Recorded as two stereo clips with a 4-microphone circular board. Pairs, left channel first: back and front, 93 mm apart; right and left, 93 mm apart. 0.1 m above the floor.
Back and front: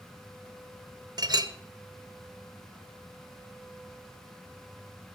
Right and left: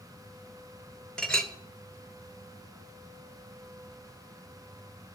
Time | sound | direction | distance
1.2 | a clink | 10° right | 1.0 m